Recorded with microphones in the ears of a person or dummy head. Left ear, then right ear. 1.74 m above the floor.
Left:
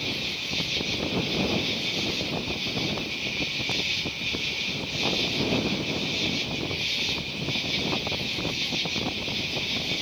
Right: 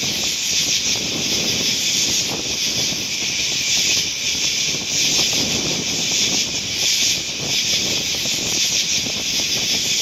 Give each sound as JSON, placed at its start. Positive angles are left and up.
{"t": 0.0, "sound": "an insect", "side_deg": -45}